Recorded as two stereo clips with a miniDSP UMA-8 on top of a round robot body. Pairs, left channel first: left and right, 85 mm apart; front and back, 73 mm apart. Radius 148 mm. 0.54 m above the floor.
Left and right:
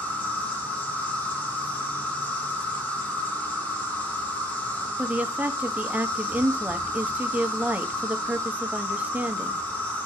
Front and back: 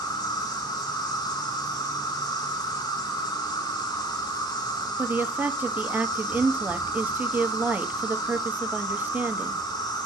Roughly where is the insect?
Ahead.